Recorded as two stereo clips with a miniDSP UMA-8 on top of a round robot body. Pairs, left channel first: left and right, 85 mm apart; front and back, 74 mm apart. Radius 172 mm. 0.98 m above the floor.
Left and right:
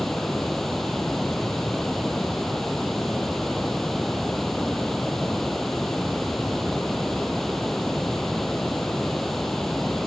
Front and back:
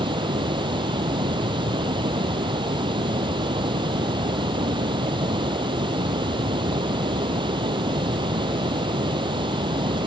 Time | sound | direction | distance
0.0 | running water | 175° left | ?